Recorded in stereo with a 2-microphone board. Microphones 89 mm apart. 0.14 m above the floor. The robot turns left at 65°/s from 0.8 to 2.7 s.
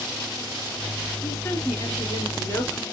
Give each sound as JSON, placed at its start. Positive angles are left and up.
{"t": 1.2, "sound": "a woman speaking", "azimuth_deg": 135, "distance_m": 1.8}